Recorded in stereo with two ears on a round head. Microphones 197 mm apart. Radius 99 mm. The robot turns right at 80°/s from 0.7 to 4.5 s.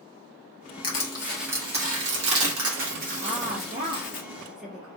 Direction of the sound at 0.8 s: 40° left (ahead or behind).